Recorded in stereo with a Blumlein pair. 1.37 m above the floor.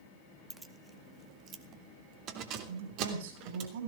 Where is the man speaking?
55° right, 6.5 m.